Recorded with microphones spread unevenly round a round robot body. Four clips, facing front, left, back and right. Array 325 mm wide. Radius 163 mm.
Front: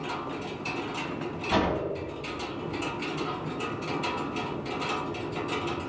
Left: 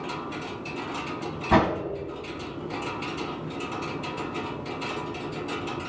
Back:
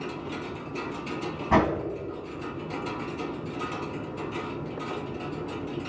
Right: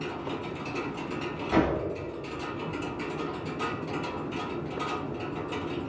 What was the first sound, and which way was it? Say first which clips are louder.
A whoosh: left 4 dB, back 4 dB; 115° left.